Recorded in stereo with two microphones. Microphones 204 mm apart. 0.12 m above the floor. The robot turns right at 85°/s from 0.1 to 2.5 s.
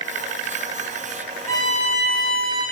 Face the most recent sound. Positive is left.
turn(degrees=100)